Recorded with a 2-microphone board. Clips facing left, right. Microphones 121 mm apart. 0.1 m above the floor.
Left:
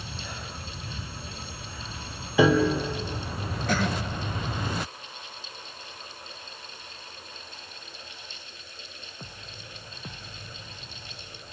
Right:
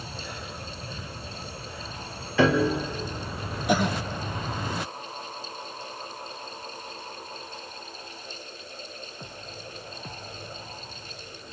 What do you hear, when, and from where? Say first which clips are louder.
2.4 s a piano: left 1 dB; 15° left (ahead or behind), 3 m
3.7 s a cough: right 3 dB; 15° right (ahead or behind), 1.7 m